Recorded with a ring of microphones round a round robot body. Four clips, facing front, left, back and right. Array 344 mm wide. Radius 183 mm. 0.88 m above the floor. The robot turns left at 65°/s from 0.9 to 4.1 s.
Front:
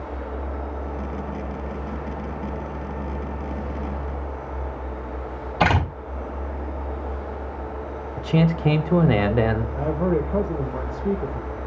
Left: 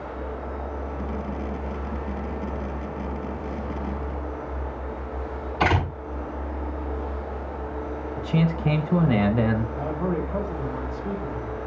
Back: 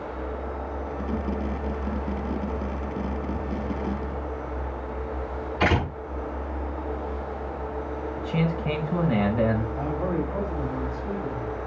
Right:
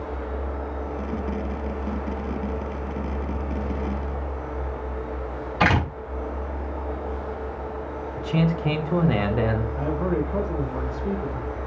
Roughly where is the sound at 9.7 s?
Ahead.